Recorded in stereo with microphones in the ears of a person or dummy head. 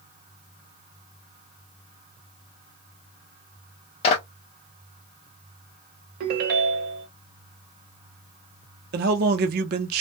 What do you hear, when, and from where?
4.0 s a clap: 35° left (ahead or behind), 0.6 m
6.2 s a ringtone: 55° right (ahead or behind), 0.6 m
8.9 s a man speaking: 55° right (ahead or behind), 0.6 m